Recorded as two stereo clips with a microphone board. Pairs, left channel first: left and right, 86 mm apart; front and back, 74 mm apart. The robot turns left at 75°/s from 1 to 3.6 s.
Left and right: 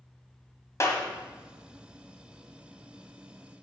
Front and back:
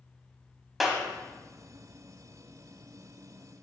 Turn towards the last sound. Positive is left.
turn(degrees=-105)